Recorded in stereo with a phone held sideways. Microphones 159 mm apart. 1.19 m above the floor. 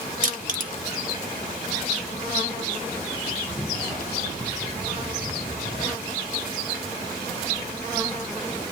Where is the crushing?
55° right (ahead or behind), 0.7 m.